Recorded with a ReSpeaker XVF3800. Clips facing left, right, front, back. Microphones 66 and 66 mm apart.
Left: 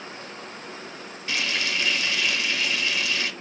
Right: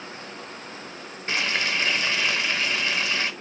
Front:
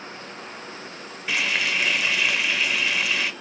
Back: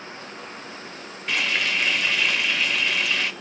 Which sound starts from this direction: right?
Frying, at 1.3 s.